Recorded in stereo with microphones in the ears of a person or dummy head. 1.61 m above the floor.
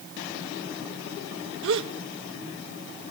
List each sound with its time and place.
1.6 s a gasp: 70° right (ahead or behind), 1.0 m